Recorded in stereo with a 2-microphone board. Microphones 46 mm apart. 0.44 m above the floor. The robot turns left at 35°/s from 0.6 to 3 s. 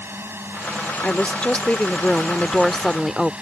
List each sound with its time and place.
0.0 s a drone: 65° right; by 3.4 s 145° right
1.0 s a woman speaking: 65° left; by 3.3 s 5° right